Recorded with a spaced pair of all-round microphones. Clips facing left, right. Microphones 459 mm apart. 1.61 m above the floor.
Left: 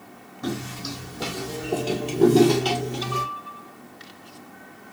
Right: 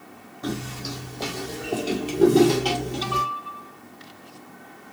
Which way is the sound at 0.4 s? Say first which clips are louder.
Even; 30° left (ahead or behind).